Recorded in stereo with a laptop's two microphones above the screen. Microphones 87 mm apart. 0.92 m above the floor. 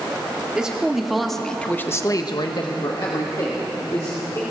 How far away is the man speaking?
About 2 m.